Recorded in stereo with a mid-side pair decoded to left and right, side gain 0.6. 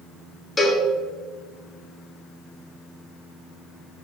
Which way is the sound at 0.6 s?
20° left.